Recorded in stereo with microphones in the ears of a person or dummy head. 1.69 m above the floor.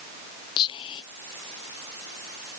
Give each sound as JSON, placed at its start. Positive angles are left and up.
{"t": 0.6, "sound": "whispering", "side_deg": 25}